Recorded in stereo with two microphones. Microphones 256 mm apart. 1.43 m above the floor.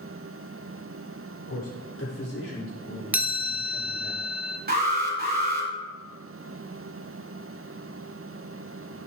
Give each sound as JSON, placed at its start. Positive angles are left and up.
{"t": 1.5, "sound": "a man speaking", "side_deg": 65, "distance_m": 5.0}
{"t": 3.1, "sound": "a chime", "side_deg": -5, "distance_m": 1.3}
{"t": 4.7, "sound": "an alarm", "side_deg": -35, "distance_m": 3.5}